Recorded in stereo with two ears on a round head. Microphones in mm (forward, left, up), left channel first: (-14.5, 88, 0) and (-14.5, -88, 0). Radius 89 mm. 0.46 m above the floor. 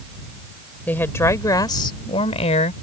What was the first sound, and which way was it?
A woman speaking, 10° left (ahead or behind).